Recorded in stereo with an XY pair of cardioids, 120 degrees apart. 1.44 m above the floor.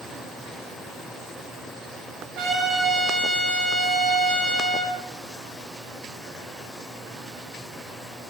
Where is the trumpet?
65° right, 9 m.